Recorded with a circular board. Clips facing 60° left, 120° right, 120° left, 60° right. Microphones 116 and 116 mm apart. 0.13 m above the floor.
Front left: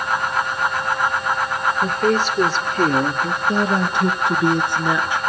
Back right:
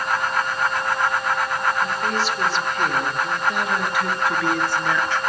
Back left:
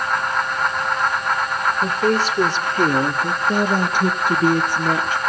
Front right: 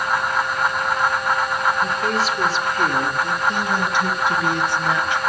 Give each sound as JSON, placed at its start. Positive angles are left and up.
{"t": 1.8, "sound": "a woman speaking", "azimuth_deg": 85, "distance_m": 3.0}